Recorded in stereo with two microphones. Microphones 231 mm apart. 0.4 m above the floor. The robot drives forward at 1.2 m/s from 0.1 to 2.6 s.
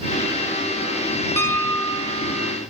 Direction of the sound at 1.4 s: 10° left (ahead or behind).